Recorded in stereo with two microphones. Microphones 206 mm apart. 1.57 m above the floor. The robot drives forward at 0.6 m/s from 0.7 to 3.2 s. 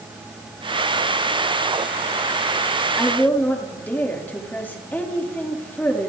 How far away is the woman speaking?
About 3.5 m.